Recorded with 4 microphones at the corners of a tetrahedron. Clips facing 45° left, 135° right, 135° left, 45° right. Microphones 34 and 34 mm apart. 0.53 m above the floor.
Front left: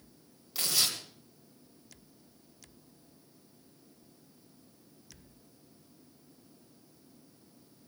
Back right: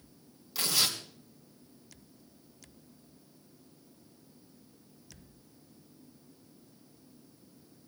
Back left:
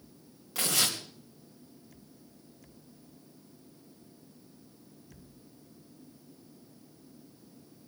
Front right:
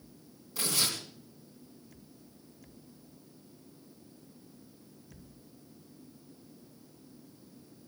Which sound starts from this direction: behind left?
Tearing paper, at 0.6 s.